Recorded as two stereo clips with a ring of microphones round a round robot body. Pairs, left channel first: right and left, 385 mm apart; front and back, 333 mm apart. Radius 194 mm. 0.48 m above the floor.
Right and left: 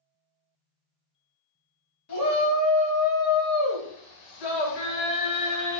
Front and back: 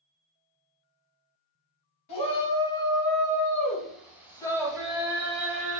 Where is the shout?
40° right, 2.5 m; by 5.8 s 115° right, 2.0 m.